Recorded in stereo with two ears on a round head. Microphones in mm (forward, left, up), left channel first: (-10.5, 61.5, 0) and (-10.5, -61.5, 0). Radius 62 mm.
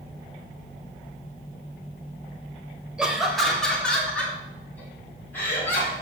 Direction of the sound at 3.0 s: 5° right (ahead or behind).